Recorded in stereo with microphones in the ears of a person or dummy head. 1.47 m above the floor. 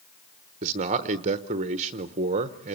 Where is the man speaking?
35° right (ahead or behind), 1.0 m.